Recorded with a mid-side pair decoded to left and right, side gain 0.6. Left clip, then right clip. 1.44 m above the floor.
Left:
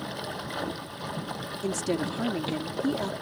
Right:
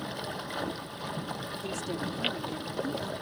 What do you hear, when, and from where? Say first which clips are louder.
0.0 s running water: left 1 dB; 10° left
1.6 s a woman speaking: left 7 dB; 50° left